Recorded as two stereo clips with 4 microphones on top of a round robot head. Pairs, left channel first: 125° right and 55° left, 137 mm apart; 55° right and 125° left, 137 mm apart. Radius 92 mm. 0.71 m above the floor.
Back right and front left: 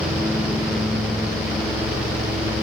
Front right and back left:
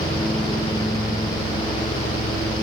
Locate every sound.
Only background noise.